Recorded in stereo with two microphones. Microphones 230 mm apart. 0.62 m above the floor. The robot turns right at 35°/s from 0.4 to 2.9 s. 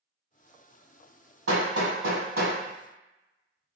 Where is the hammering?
80° right, 1.6 m; by 3.8 s 35° right (ahead or behind), 1.6 m.